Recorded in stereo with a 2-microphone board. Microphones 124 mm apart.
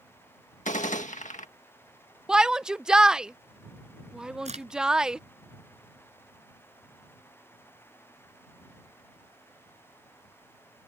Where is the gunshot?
85° left.